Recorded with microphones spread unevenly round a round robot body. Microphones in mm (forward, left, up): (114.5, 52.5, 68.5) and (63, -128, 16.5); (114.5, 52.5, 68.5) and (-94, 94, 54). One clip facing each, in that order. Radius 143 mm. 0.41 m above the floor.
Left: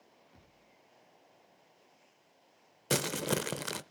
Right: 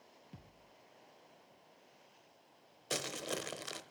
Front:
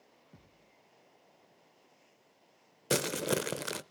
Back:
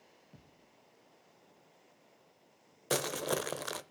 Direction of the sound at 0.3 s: 90° right.